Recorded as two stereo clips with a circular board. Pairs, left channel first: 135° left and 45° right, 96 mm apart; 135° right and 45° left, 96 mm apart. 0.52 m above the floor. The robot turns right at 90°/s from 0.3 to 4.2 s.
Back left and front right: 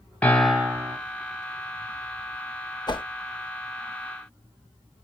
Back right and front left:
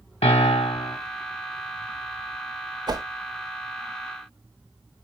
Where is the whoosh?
90° left, 0.7 m; by 3.0 s 105° left, 0.7 m.